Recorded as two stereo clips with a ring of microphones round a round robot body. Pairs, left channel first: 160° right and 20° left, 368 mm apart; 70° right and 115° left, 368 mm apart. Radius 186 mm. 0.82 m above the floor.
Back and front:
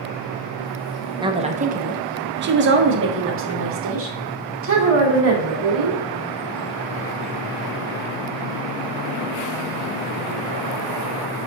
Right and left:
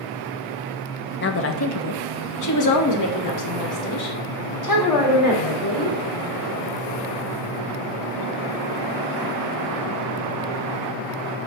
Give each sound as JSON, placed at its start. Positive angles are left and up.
{"t": 1.2, "sound": "a woman speaking", "azimuth_deg": -45, "distance_m": 0.7}